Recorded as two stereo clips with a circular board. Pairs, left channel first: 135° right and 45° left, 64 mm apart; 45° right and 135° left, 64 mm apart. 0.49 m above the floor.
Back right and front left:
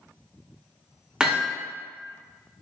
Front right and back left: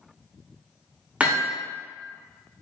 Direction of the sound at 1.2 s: 105° left.